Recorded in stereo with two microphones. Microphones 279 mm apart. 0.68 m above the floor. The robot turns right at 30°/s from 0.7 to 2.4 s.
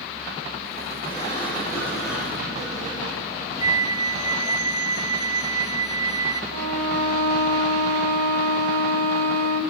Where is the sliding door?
150° left, 8 m; by 3.9 s 170° right, 8 m.